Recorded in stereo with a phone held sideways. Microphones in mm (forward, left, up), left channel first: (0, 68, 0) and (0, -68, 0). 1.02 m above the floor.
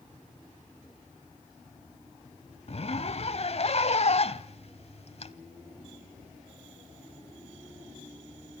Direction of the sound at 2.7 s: 50° left (ahead or behind).